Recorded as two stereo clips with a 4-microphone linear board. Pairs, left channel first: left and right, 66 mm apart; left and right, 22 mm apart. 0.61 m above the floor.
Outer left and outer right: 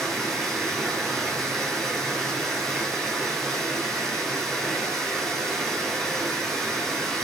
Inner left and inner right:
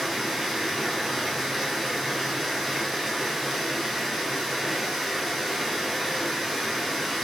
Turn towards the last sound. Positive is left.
turn(degrees=5)  # may be behind; listen again after turning